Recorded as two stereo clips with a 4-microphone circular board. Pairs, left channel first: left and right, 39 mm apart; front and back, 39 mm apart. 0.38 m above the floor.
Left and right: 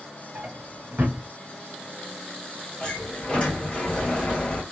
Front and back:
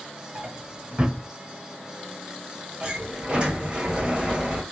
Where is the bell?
No bell in this recording.